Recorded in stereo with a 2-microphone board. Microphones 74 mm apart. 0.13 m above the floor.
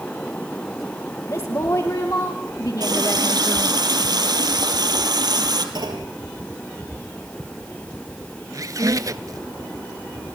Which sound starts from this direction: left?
A woman speaking, at 1.3 s.